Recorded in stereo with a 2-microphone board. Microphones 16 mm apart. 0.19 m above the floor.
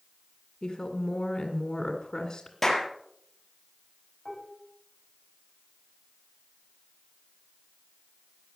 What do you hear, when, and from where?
0.6 s a woman speaking: 45° left (ahead or behind), 2 m
2.6 s a clap: 15° left (ahead or behind), 4 m
4.2 s dishes clattering: centre (ahead or behind), 10 m